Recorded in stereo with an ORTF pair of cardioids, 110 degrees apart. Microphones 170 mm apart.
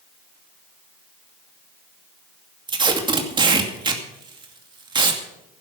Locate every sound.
2.7 s tape being pulled: 30° right, 2.5 m